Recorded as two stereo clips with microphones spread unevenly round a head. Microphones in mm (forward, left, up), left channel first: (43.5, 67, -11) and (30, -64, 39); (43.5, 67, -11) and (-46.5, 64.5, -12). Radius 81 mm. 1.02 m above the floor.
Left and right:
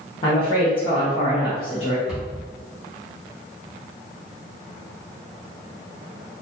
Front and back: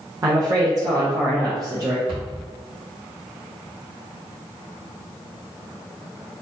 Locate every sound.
0.2 s a woman speaking: 130° left, 0.8 m
2.1 s a cupboard door: 165° left, 1.5 m